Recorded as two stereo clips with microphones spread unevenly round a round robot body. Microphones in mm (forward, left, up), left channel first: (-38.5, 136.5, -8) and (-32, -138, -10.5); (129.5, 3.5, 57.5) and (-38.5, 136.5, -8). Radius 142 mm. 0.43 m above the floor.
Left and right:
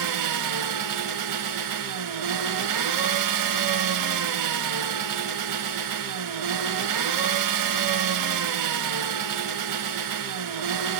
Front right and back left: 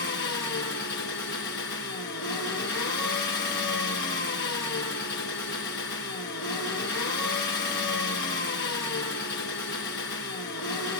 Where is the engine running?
95° right, 1.3 m.